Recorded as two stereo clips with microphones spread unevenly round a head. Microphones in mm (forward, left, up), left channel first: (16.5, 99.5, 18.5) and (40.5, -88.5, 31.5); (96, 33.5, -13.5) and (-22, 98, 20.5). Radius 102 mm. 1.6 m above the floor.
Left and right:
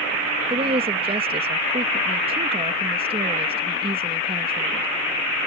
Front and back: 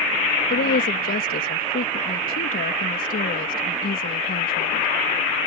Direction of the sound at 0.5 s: 20° right.